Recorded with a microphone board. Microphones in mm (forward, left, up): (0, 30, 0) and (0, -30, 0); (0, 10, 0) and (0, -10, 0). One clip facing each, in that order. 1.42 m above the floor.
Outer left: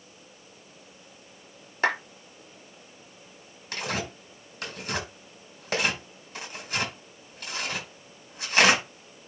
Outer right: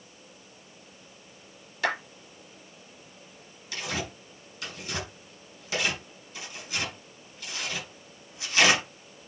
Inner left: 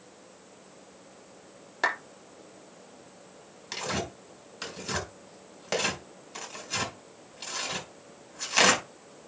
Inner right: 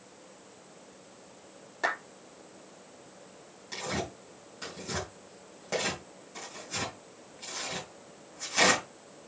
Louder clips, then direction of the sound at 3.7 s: Outer left 2 dB, inner left 2 dB; 55° left (ahead or behind).